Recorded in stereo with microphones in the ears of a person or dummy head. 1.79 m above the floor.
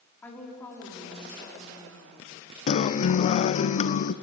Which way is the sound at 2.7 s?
35° left (ahead or behind).